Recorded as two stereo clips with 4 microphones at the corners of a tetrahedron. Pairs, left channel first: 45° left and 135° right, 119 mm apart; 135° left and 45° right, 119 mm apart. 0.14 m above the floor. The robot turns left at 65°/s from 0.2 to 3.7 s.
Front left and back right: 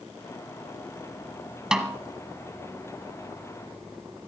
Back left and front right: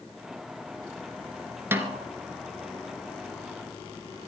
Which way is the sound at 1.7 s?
60° right.